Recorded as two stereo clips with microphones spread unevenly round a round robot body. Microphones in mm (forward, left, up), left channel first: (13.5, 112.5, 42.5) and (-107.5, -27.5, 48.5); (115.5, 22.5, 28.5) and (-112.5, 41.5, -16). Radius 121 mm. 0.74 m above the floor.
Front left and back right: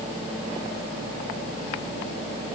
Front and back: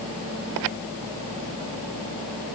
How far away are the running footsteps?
No running footsteps in this recording.